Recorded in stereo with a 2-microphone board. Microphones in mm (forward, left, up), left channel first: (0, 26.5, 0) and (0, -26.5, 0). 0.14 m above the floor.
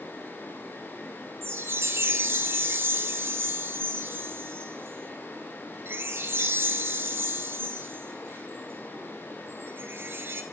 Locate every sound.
1.4 s a chime: 50° right (ahead or behind), 0.6 m